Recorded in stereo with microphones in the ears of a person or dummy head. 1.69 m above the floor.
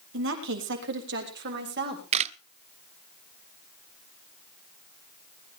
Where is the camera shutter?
35° right (ahead or behind), 0.7 m.